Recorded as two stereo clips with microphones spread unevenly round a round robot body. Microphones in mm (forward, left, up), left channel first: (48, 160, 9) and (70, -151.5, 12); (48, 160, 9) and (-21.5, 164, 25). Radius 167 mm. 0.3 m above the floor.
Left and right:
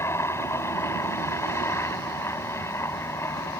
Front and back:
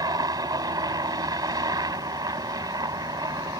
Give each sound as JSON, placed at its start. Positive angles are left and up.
{"t": 0.0, "sound": "a helicopter", "azimuth_deg": 175}